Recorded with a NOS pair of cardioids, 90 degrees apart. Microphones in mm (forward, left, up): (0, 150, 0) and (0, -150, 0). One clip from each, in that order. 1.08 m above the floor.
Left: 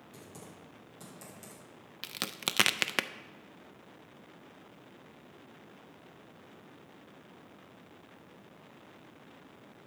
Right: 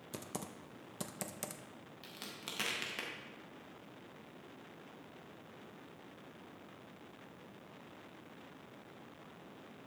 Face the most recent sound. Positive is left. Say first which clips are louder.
# left 12 dB
turn(degrees=70)